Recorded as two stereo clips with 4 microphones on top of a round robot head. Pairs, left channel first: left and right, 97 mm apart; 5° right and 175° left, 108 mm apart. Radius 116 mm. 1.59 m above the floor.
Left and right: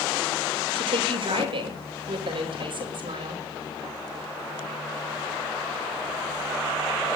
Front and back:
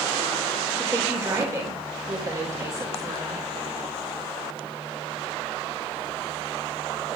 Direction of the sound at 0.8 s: 115° right.